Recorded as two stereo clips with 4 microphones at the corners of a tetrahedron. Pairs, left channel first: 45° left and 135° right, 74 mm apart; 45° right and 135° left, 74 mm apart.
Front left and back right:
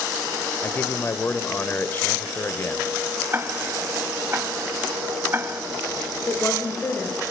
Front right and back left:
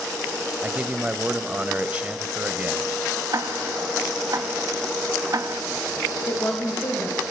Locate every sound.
0.6 s a man speaking: 80° left, 1.0 m
3.3 s ticking: 170° left, 0.6 m
6.3 s a woman speaking: 5° right, 1.9 m